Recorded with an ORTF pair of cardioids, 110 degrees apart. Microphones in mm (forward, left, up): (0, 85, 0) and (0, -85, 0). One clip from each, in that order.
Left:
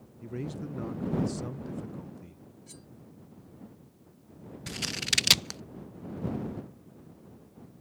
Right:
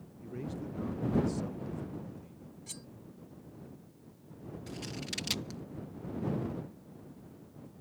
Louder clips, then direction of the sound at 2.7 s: Right 6 dB; 40° right.